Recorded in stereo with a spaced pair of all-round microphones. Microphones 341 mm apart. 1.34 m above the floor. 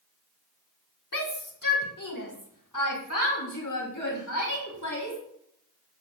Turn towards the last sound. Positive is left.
turn(degrees=60)  # may be behind; listen again after turning